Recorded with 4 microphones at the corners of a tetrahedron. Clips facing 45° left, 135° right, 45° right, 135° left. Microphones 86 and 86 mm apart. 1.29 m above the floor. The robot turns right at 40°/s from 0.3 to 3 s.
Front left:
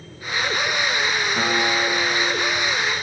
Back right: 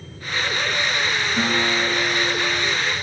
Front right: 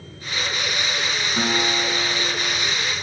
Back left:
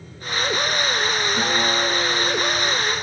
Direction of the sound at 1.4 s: 10° right.